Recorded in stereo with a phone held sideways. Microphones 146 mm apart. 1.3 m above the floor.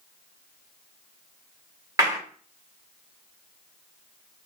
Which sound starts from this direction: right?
A clap, at 2.0 s.